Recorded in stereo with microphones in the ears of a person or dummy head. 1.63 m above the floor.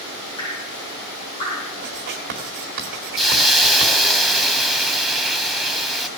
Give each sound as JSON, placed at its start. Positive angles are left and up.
{"t": 0.4, "sound": "dripping", "side_deg": 25, "distance_m": 5.5}
{"t": 1.8, "sound": "writing", "side_deg": -40, "distance_m": 2.0}
{"t": 3.2, "sound": "a hiss", "side_deg": 0, "distance_m": 0.9}